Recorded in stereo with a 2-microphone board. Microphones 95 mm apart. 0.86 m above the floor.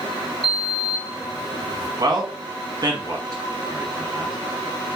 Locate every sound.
0.4 s a sliding door: 55° right (ahead or behind), 1.3 m
2.0 s a man speaking: 45° right (ahead or behind), 1.2 m